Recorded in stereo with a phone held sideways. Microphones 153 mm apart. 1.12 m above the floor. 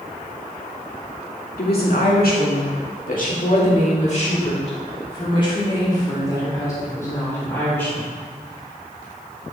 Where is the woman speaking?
85° left, 2.5 m; by 8.1 s 15° left (ahead or behind), 4 m.